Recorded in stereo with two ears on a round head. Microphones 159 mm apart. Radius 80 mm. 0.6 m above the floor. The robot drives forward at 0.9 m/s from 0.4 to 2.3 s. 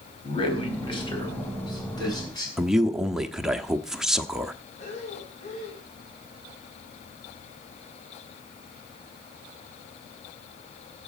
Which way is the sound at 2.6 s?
5° right (ahead or behind).